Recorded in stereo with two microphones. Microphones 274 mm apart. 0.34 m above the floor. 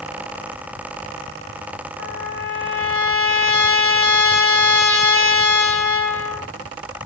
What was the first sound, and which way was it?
A trumpet, 45° left (ahead or behind).